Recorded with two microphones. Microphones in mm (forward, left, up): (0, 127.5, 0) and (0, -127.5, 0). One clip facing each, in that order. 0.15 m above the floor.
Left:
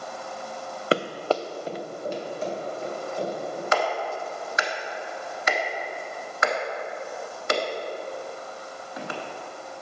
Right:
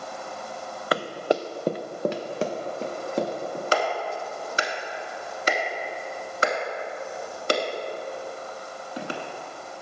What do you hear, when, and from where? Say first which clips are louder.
0.9 s running footsteps: even; 30° left (ahead or behind), 0.5 m; by 3.6 s 80° right, 2.5 m
3.7 s a clap: even; 35° right (ahead or behind), 1.0 m